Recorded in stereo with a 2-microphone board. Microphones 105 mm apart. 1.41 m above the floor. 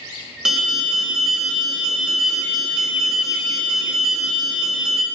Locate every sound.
0.5 s an alarm: 5° right (ahead or behind), 1.1 m